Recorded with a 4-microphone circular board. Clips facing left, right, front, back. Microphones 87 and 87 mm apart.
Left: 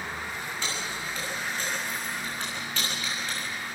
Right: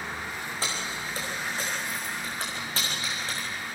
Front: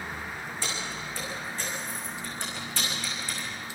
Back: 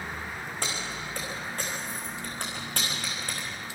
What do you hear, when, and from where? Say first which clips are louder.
0.6 s keys jangling: right 2 dB, back 1 dB; 145° right, 5.5 m